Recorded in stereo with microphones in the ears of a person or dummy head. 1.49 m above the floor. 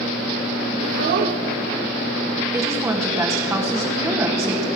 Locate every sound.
0.8 s a child speaking: 55° right (ahead or behind), 1.2 m
2.5 s a woman speaking: 20° right (ahead or behind), 1.9 m